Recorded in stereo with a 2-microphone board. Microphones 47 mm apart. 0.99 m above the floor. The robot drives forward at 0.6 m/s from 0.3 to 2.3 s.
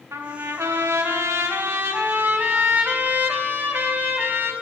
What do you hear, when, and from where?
0.1 s a trumpet: 60° right (ahead or behind), 0.8 m; by 4.5 s 40° right (ahead or behind), 1.1 m